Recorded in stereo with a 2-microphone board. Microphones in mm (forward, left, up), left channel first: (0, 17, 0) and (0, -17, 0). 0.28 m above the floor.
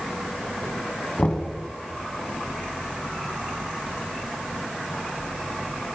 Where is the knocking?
35° left (ahead or behind), 1.5 m.